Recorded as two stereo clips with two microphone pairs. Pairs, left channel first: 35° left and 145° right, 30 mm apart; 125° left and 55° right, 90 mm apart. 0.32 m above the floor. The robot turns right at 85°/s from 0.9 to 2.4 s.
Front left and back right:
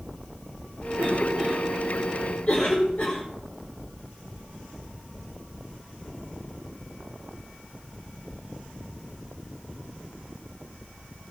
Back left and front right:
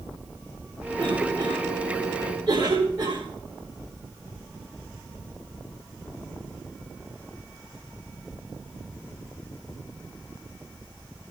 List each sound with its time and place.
1.0 s a cough: 140° right, 6.5 m; by 3.2 s 15° right, 6.5 m